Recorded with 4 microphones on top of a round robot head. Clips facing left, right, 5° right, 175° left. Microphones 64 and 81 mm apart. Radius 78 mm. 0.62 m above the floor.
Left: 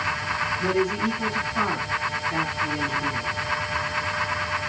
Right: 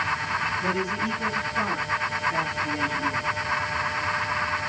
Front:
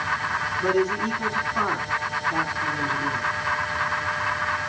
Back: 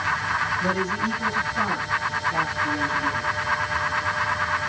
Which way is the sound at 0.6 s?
35° left.